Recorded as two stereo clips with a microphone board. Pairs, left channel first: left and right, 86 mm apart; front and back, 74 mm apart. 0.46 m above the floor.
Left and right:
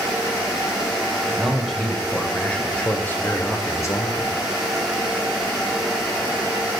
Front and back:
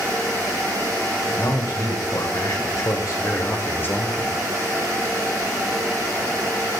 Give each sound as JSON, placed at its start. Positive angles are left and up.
{"t": 1.3, "sound": "a man speaking", "azimuth_deg": 0, "distance_m": 2.0}